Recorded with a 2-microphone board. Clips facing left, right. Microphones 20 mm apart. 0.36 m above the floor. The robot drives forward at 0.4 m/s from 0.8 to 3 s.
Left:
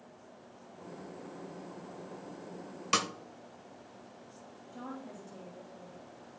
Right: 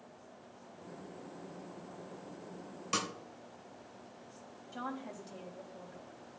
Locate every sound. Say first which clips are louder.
2.9 s a snare drum: left 5 dB; 30° left (ahead or behind), 0.7 m
4.7 s a woman speaking: right 3 dB; 55° right (ahead or behind), 2.5 m